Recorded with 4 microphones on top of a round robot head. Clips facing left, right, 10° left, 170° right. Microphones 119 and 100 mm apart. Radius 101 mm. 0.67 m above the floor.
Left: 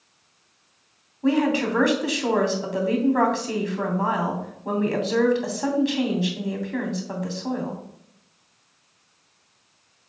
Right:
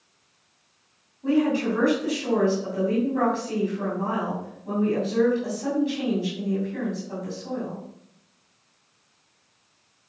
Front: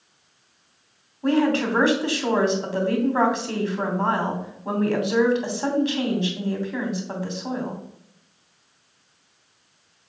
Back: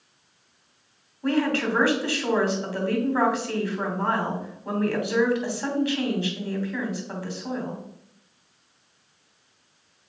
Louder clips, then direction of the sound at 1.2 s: Left 1 dB, front 3 dB; 80° left.